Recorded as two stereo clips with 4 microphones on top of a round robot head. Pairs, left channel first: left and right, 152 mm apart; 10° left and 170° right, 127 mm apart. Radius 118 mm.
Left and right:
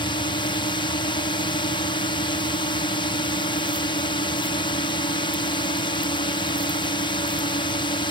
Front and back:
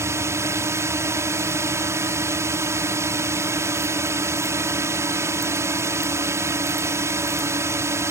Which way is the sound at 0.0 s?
130° left.